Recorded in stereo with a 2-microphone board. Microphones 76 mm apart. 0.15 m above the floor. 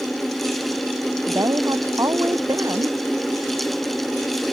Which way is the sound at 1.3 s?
50° right (ahead or behind).